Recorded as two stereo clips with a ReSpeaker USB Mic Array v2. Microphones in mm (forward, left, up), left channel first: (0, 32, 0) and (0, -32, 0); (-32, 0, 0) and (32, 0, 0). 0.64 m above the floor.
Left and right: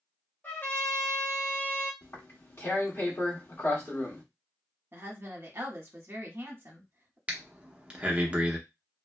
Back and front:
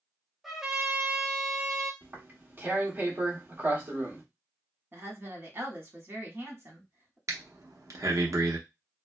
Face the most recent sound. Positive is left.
turn(degrees=-20)